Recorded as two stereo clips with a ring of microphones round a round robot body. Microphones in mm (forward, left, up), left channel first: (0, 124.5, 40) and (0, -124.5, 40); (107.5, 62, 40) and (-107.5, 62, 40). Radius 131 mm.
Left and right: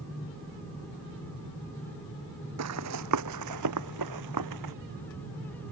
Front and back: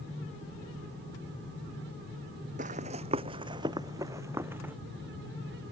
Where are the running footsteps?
120° right; by 4.7 s 95° right.